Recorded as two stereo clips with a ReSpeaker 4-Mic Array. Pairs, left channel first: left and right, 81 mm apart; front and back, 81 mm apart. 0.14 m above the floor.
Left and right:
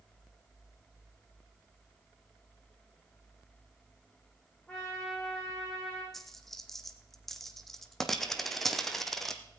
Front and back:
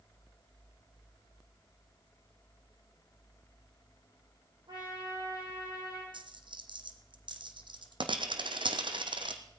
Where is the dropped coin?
175° left, 1.4 m.